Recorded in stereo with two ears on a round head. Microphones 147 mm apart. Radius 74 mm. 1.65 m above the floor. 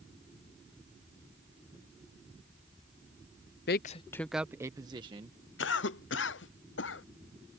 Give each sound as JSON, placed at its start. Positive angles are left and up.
{"t": 3.7, "sound": "a man speaking", "side_deg": 65}
{"t": 5.6, "sound": "a cough", "side_deg": 85}